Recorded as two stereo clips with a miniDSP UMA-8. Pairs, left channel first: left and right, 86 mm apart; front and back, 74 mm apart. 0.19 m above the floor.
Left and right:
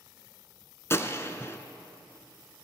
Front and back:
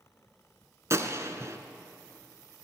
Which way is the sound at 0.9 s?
145° left.